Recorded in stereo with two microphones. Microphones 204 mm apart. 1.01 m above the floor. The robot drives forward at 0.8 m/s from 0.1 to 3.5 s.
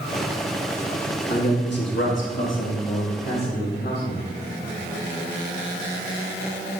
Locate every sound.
1.3 s a man speaking: 50° left (ahead or behind), 1.6 m; by 4.3 s 55° left (ahead or behind), 1.5 m